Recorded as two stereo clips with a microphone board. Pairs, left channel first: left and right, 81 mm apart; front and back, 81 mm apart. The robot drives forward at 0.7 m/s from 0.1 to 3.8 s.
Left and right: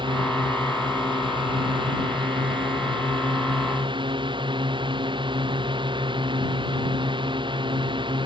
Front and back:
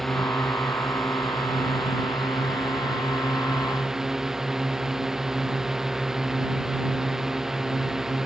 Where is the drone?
90° right; by 8.2 s 95° right.